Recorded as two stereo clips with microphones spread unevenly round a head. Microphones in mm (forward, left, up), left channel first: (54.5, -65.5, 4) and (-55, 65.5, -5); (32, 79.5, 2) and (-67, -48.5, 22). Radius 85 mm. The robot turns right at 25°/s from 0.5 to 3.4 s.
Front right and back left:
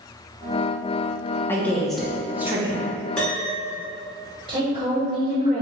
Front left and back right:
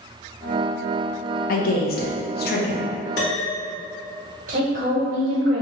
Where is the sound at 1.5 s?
30° left, 0.6 m; by 2.9 s 65° left, 0.6 m.